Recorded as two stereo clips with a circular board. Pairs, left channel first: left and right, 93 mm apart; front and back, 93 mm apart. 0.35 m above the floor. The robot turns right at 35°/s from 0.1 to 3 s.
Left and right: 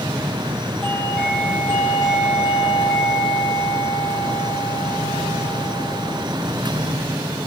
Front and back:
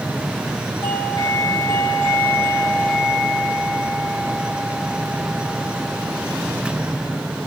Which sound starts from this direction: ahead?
A doorbell, at 0.8 s.